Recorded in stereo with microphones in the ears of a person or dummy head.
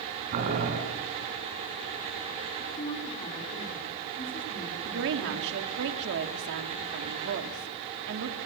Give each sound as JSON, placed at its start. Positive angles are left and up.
{"t": 0.3, "sound": "boiling", "side_deg": -45, "distance_m": 6.5}
{"t": 2.6, "sound": "a woman speaking", "side_deg": 25, "distance_m": 4.5}
{"t": 4.8, "sound": "a woman speaking", "side_deg": -65, "distance_m": 2.5}